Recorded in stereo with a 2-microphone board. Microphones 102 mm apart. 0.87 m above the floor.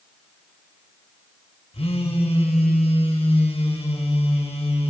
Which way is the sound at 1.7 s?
80° left.